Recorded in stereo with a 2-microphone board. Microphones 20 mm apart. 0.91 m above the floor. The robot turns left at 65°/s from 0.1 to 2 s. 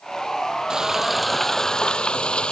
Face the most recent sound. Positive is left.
turn(degrees=130)